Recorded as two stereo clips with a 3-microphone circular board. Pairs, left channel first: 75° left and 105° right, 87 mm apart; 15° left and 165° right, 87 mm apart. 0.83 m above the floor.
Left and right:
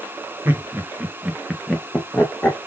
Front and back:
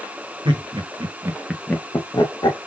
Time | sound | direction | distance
0.5 | laughter | 170° right | 1.8 m